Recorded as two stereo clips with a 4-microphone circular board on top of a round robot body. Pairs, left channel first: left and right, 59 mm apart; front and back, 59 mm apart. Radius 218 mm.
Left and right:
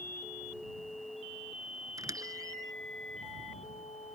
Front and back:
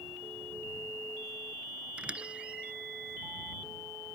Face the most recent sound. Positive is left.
turn(degrees=-110)